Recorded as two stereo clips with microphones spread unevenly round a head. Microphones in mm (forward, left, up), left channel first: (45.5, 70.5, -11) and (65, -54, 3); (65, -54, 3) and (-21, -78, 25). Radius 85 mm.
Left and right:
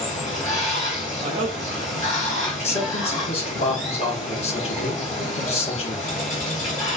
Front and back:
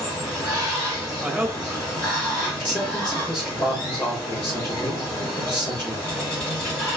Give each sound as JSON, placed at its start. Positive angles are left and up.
{"t": 0.0, "sound": "running water", "azimuth_deg": 100, "distance_m": 2.5}
{"t": 1.2, "sound": "a woman speaking", "azimuth_deg": -80, "distance_m": 0.6}
{"t": 2.5, "sound": "a man speaking", "azimuth_deg": 80, "distance_m": 1.1}